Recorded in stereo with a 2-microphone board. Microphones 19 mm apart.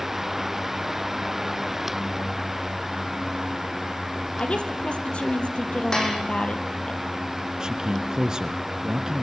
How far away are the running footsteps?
No running footsteps in this recording.